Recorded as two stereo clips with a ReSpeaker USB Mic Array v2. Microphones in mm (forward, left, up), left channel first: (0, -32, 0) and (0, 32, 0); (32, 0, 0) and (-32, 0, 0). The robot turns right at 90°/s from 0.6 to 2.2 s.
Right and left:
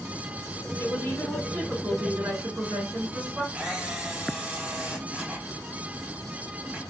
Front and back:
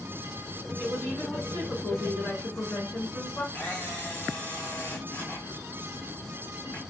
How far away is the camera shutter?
About 1.2 m.